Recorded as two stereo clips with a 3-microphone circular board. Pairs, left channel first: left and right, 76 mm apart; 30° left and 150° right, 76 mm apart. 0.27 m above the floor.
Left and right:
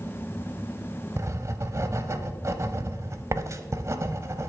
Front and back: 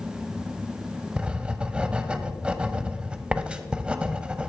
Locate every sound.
1.2 s writing: 80° right, 0.6 m